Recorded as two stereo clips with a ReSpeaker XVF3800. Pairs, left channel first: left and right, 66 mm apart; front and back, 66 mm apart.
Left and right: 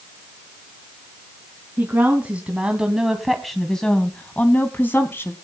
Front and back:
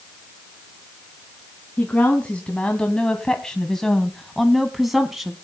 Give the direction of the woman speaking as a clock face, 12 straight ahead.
2 o'clock.